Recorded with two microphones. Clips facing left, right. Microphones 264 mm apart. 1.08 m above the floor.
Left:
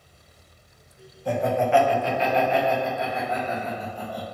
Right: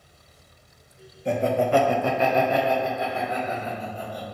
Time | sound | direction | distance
1.2 | laughter | 25° right (ahead or behind) | 0.8 m